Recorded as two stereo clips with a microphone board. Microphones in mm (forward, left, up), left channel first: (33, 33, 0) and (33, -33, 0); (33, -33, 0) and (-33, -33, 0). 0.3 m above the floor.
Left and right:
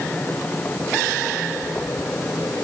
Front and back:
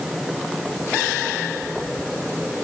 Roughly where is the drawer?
I don't hear a drawer.